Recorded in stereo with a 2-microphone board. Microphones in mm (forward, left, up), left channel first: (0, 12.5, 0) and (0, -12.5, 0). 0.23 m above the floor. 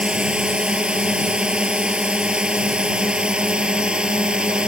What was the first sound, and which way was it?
A drone, 35° right (ahead or behind).